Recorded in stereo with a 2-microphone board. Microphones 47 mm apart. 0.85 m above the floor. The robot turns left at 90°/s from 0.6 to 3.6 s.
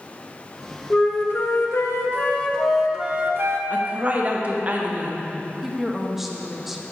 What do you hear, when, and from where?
0.9 s a flute: 165° left, 0.6 m; by 3.6 s 75° right, 0.6 m
3.7 s a woman speaking: 35° right (ahead or behind), 0.8 m
5.6 s a woman speaking: 5° right (ahead or behind), 0.6 m